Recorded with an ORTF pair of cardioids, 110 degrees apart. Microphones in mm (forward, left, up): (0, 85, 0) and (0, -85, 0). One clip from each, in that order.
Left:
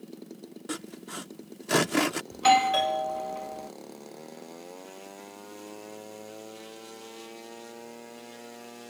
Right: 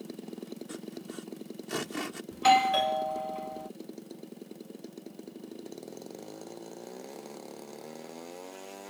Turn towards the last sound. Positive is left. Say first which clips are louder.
# left 1 dB
turn(degrees=10)